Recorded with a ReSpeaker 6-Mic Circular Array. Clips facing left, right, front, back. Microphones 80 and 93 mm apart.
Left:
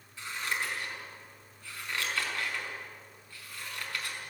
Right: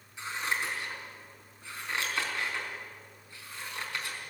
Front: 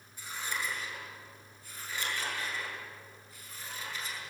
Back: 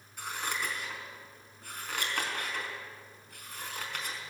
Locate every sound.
0.2 s scissors: 160° right, 4.5 m